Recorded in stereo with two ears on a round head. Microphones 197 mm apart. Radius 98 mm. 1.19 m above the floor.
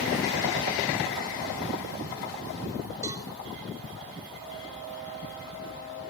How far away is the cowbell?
About 4.5 m.